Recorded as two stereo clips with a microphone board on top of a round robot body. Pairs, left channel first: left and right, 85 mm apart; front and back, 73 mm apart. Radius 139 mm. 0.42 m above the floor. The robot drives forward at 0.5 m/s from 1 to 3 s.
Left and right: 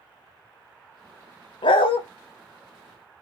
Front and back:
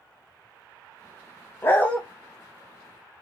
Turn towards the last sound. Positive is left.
turn(degrees=125)